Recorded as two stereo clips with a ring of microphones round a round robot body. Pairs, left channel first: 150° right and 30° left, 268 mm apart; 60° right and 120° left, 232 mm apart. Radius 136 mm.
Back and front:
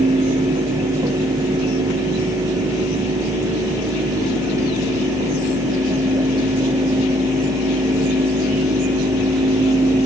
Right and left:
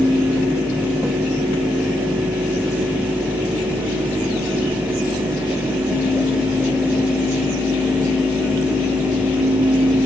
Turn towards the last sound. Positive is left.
No sound to turn to.